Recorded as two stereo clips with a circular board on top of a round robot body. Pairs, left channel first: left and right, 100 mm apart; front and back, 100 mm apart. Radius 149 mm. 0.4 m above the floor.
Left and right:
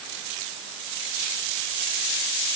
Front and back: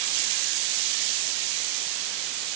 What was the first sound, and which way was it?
Only background noise.